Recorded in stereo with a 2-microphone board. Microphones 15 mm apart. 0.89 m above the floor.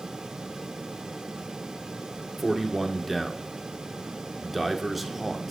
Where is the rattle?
No rattle in this recording.